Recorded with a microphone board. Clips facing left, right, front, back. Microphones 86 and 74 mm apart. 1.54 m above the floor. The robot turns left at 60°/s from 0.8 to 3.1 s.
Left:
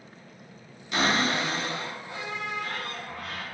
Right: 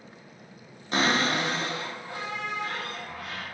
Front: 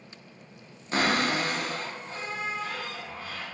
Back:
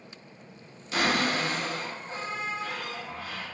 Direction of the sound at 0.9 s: 45° right.